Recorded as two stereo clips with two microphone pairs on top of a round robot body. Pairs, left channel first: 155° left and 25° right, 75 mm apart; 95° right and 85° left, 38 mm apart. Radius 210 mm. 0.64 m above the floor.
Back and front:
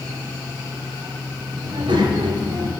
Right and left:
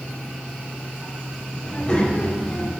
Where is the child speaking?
35° right, 2 m; by 2.7 s 65° right, 1.8 m.